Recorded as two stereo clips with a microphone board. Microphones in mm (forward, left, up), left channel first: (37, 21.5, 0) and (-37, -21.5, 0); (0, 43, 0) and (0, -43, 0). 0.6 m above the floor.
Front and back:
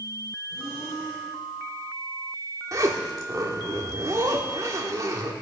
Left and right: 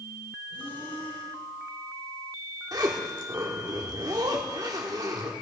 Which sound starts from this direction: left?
Breathing, at 0.5 s.